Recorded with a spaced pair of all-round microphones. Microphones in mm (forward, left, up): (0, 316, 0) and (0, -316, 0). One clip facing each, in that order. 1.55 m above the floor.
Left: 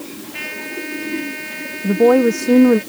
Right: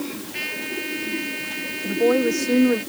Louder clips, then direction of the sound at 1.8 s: Left 7 dB; 75° left (ahead or behind).